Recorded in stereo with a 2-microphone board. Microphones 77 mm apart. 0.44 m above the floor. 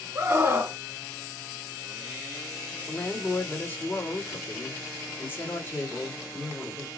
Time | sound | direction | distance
0.1 | a scream | 45° right (ahead or behind) | 1.3 m
2.9 | a woman speaking | 30° left (ahead or behind) | 1.6 m